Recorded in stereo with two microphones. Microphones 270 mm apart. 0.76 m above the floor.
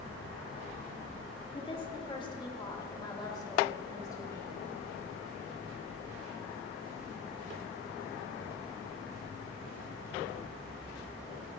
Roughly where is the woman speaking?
Centre.